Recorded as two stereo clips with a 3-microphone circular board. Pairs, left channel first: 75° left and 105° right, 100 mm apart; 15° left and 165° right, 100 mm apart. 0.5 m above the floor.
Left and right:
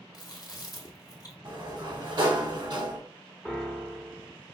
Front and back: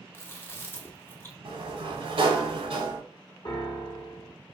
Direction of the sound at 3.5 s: 10° right.